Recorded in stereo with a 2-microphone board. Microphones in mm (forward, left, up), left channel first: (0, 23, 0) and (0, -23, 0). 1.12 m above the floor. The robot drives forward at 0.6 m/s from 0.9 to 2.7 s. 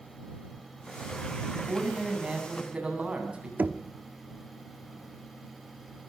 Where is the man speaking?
25° right (ahead or behind), 9.5 m; by 3.5 s 20° right (ahead or behind), 10 m.